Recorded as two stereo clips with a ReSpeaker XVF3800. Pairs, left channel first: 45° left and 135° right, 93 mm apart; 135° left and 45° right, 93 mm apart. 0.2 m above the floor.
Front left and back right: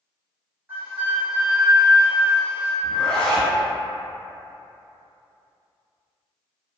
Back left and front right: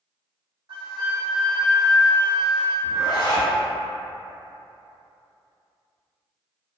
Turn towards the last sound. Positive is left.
turn(degrees=125)